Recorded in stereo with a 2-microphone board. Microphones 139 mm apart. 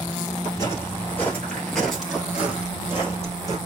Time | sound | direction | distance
0.5 | footsteps | 25° left (ahead or behind) | 1.7 m